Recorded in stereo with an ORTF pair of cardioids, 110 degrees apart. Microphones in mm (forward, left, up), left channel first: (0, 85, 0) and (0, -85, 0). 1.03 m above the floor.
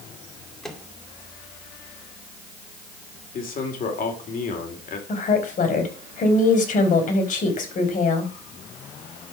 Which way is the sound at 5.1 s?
50° left.